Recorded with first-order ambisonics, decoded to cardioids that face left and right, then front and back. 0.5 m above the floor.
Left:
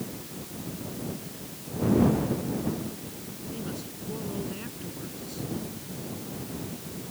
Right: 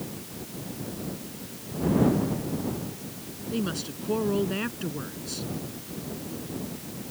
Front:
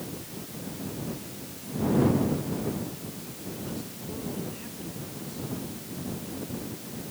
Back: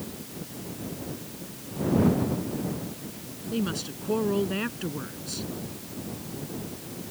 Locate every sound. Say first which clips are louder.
3.5 s a woman speaking: right 8 dB, back 9 dB; 145° right